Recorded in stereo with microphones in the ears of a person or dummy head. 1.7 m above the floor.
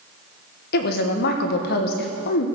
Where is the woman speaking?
60° left (ahead or behind), 1.3 m.